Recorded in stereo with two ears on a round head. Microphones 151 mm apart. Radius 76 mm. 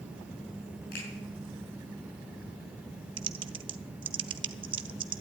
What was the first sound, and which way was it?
A finger snap, 55° left (ahead or behind).